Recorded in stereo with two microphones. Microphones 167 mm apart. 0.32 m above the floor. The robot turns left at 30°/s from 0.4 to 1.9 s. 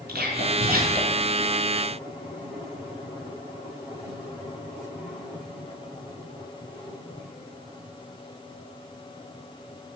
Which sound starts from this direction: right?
Whispering, at 0.1 s.